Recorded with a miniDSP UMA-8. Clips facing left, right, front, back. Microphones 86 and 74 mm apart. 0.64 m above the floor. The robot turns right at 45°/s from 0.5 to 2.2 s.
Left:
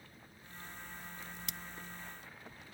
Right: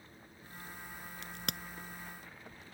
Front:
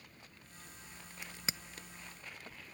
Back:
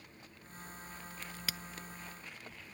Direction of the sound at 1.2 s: 80° right.